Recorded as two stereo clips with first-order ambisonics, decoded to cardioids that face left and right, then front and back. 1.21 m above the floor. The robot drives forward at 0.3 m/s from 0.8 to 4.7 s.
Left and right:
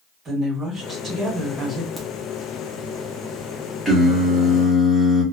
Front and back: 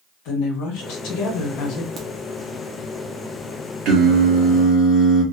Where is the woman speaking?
20° right, 1.4 m; by 1.9 s 25° right, 1.1 m.